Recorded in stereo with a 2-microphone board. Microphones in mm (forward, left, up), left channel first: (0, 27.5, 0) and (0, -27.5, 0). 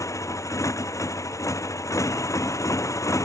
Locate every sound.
0.0 s a motorcycle: 70° left (ahead or behind)